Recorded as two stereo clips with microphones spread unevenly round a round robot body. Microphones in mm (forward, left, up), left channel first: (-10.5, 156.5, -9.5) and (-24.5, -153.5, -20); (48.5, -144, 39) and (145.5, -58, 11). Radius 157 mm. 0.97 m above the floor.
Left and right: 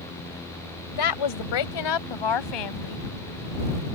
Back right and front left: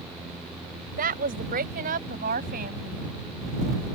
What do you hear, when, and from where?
1.0 s a woman speaking: 70° left; by 3.1 s 85° left